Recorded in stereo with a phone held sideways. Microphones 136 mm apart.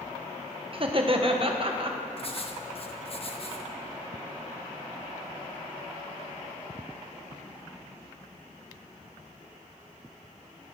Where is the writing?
45° left (ahead or behind), 0.9 m.